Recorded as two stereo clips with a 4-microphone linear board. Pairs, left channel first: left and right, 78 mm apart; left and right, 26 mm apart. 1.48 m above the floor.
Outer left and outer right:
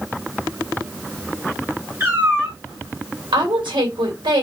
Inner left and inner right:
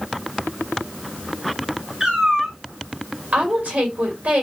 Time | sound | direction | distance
2.0 | a cat meowing | 30° right (ahead or behind) | 1.6 m
3.3 | a woman speaking | 85° right | 1.7 m